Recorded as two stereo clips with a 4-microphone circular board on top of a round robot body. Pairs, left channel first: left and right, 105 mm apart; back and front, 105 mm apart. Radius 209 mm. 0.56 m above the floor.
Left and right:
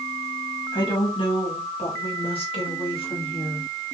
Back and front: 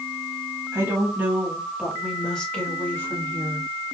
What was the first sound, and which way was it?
A woman speaking, 60° left.